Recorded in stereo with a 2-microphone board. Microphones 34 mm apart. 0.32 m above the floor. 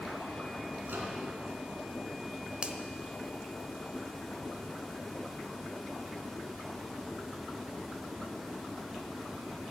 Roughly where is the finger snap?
Right.